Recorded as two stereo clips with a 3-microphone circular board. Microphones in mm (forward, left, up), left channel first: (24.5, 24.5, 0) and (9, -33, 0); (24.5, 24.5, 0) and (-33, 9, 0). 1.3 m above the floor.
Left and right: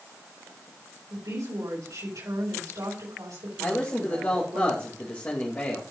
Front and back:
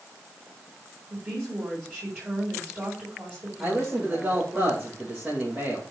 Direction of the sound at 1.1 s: 105° right.